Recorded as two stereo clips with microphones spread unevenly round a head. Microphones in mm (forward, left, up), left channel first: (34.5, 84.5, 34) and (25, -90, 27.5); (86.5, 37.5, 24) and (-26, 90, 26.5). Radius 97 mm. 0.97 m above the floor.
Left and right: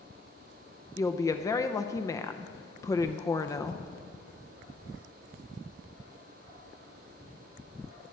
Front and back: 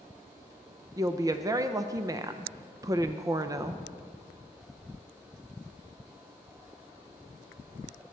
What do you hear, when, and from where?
1.0 s a woman speaking: 140° left, 0.5 m